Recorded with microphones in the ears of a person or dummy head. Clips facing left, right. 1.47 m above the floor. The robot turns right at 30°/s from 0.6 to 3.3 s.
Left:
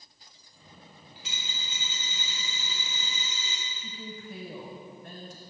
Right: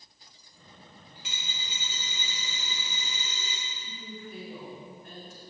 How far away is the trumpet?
I don't hear a trumpet.